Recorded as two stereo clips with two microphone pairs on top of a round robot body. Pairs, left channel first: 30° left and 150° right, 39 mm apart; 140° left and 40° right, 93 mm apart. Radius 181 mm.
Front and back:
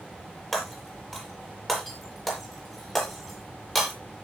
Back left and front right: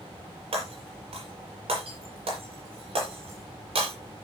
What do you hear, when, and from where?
0.5 s breaking glass: 55° right, 7 m